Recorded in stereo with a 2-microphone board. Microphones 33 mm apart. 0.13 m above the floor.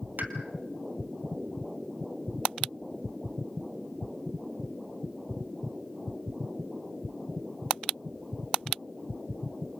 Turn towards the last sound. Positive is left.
turn(degrees=-60)  # may be behind; listen again after turning